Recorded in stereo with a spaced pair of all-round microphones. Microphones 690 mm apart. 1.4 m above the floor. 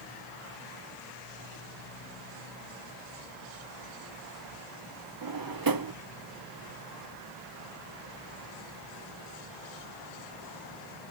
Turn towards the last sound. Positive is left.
turn(degrees=-35)  # may be behind; listen again after turning